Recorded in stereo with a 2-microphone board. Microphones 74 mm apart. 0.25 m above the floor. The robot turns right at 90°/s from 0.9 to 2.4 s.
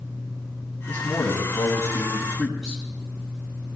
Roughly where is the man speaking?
Ahead left.